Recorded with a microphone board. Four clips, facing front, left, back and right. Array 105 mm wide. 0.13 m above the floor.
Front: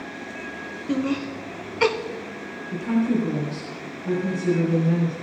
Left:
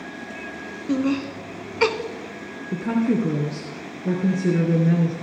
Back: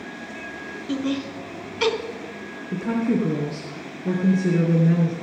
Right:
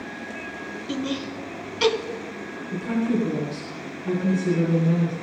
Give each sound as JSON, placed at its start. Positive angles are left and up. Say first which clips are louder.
{"t": 0.9, "sound": "laughter", "louder": "left 7 dB, front 1 dB", "azimuth_deg": 60, "distance_m": 1.2}
{"t": 2.7, "sound": "a woman speaking", "louder": "left 3 dB, even", "azimuth_deg": 125, "distance_m": 2.5}